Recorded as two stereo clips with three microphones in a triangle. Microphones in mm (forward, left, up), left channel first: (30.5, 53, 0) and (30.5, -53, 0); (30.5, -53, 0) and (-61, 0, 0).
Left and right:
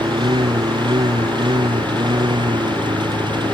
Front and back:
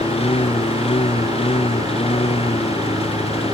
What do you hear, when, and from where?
0.0 s a lawn mower: 45° right